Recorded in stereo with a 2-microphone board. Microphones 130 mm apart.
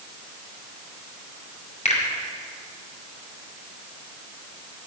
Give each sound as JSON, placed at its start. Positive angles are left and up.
{"t": 1.9, "sound": "a finger snap", "side_deg": 65, "distance_m": 1.9}